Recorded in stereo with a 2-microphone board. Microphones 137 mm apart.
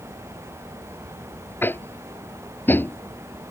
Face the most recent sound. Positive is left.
turn(degrees=15)  # may be behind; listen again after turning